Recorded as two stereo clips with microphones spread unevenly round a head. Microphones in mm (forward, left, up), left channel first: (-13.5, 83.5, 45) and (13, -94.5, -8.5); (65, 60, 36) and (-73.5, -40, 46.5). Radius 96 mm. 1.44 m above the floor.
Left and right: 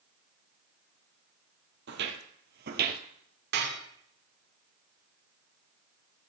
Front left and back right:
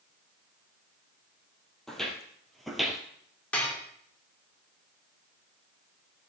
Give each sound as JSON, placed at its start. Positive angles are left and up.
{"t": 1.9, "sound": "footsteps", "azimuth_deg": -55, "distance_m": 2.0}
{"t": 3.5, "sound": "dishes clattering", "azimuth_deg": -45, "distance_m": 3.0}